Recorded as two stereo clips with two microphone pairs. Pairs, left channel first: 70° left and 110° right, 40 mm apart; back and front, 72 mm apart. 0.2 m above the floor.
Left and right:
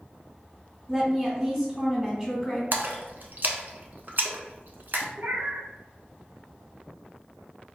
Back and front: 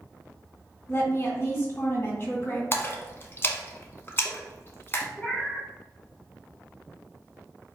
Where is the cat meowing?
95° right, 1.1 m.